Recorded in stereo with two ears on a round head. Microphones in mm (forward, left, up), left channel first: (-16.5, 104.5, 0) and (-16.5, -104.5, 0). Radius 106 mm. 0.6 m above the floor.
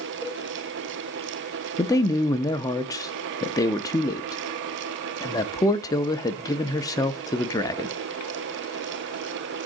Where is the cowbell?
25° left (ahead or behind), 6.5 m.